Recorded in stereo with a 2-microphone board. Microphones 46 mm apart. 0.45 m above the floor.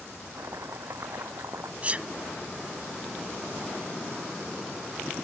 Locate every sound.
0.3 s chopping: 90° right
1.8 s a sneeze: 30° right (ahead or behind)